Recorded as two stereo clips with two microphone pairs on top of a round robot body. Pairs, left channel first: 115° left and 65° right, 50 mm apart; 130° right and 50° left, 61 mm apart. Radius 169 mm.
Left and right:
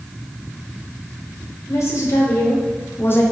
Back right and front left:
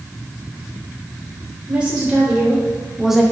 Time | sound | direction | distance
1.7 | a woman speaking | 125° left | 3.5 m